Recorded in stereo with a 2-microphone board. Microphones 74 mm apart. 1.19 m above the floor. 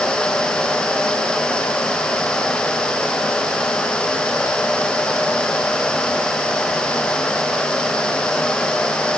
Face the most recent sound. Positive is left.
No sound to turn to.